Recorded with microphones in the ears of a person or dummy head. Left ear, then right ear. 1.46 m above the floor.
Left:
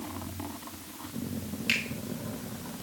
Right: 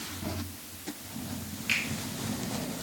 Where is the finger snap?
20° left (ahead or behind), 5 m.